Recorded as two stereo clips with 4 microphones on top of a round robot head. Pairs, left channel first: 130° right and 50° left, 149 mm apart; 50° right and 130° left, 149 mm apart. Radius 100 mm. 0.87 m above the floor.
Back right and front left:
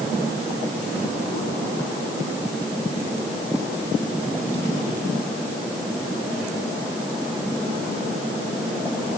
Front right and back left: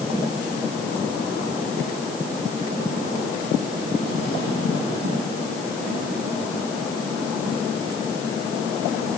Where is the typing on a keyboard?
No typing on a keyboard in this recording.